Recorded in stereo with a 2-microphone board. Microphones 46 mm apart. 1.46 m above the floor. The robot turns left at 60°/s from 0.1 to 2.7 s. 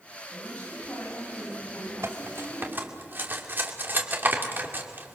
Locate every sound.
0.3 s a woman speaking: 170° left, 9 m; by 2.8 s 30° left, 9 m
2.0 s cutlery clinking: 75° right (ahead or behind), 2.5 m; by 5.2 s 45° right (ahead or behind), 2.5 m